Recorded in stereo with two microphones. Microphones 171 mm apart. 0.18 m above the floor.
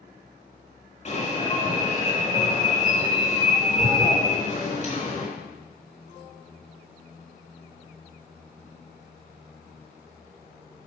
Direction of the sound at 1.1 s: 45° left (ahead or behind).